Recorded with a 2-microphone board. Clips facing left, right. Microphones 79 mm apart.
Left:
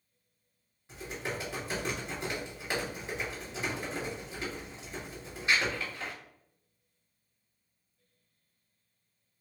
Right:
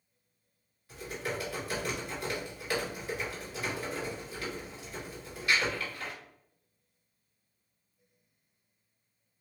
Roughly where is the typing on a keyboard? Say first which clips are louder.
Right 1 dB; left.